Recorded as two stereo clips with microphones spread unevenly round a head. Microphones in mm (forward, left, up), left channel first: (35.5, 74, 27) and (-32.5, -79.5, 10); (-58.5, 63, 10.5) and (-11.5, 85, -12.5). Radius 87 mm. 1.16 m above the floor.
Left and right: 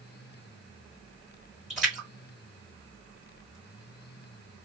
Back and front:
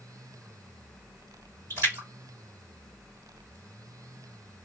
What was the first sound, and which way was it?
A splash, 25° right.